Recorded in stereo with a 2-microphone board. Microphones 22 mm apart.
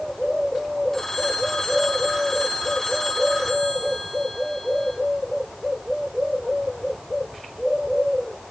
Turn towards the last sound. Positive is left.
turn(degrees=10)  # may be behind; listen again after turning